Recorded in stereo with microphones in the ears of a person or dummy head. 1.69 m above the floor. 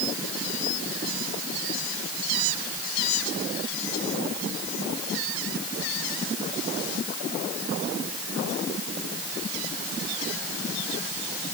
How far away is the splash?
I don't hear a splash.